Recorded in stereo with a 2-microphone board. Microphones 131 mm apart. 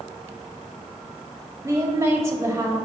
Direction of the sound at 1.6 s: 20° right (ahead or behind).